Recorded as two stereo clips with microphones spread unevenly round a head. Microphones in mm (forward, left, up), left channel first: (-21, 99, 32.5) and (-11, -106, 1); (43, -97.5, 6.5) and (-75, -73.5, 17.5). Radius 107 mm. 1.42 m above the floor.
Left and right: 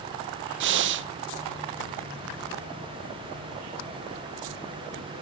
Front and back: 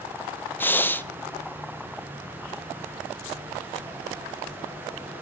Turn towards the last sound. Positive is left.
turn(degrees=-80)